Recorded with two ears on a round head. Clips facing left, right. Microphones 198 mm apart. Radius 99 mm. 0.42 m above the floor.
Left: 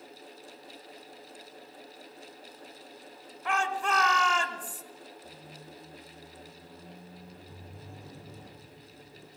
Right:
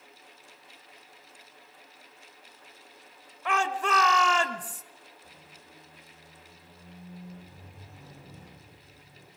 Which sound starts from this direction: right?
A shout, at 3.5 s.